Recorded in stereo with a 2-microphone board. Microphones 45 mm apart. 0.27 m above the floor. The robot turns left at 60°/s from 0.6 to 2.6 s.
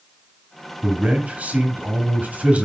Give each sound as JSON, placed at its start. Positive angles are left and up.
{"t": 0.8, "sound": "a man speaking", "azimuth_deg": -25, "distance_m": 1.2}